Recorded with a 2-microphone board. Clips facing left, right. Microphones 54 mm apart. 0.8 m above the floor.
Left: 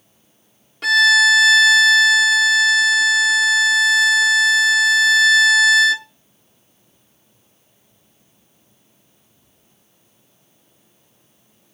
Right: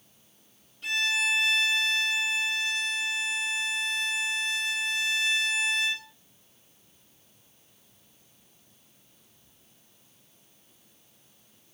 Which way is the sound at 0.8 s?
80° left.